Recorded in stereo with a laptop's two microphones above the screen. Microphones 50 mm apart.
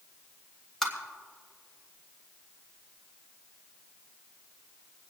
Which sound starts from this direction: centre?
Tapping, at 0.8 s.